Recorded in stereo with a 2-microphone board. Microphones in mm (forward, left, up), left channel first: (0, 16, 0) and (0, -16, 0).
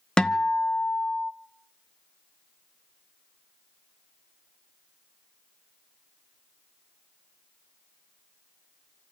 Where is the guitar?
25° left (ahead or behind), 1.0 m.